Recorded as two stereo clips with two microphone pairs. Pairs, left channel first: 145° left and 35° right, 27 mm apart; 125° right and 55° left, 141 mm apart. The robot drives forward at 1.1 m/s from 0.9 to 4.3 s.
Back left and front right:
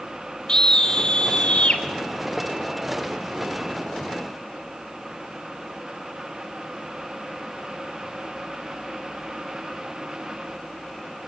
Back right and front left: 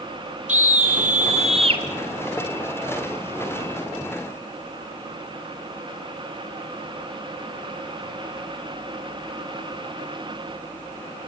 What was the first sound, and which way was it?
A scream, 80° left.